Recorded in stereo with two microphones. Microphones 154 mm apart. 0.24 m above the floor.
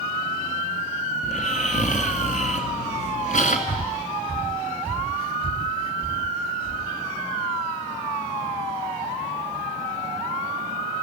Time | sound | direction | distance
1.2 | snoring | 60° left (ahead or behind) | 2.5 m
3.7 | breathing | 40° left (ahead or behind) | 0.8 m